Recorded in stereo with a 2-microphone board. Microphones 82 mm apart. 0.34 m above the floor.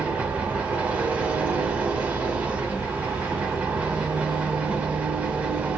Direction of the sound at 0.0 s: 15° right (ahead or behind).